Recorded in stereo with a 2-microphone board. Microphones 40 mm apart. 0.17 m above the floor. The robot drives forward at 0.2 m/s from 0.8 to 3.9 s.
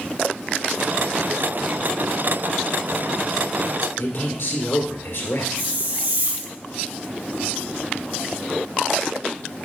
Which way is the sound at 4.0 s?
65° left (ahead or behind).